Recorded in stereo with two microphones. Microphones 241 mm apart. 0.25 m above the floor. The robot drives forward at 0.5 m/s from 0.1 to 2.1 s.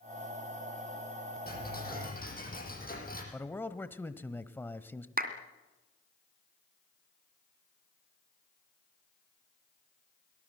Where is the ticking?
40° left (ahead or behind), 6.5 m; by 3.2 s 35° left (ahead or behind), 6.5 m.